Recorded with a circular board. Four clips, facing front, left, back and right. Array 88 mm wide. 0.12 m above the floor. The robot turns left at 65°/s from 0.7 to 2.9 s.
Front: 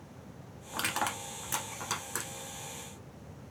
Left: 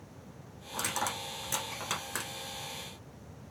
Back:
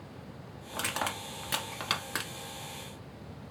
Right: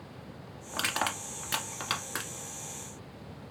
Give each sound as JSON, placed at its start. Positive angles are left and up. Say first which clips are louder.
{"t": 0.7, "sound": "crushing", "louder": "right 2 dB, front 1 dB", "azimuth_deg": -70, "distance_m": 1.1}